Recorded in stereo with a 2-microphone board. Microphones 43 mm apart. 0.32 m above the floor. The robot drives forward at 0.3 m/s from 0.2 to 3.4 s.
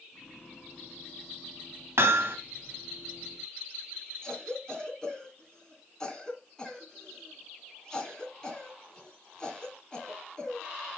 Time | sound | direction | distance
2.0 | hammering | 65° right (ahead or behind) | 1.1 m
4.2 | a cough | 20° left (ahead or behind) | 3 m